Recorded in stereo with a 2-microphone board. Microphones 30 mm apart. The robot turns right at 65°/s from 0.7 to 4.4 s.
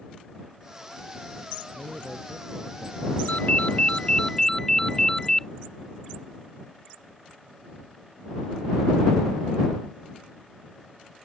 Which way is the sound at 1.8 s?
160° left.